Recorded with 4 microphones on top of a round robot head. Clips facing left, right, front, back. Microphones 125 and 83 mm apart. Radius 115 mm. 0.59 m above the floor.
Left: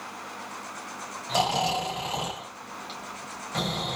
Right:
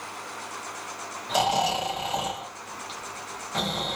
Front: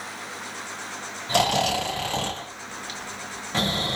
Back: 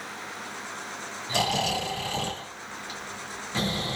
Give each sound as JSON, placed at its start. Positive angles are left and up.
{"t": 1.3, "sound": "snoring", "azimuth_deg": -5, "distance_m": 3.0}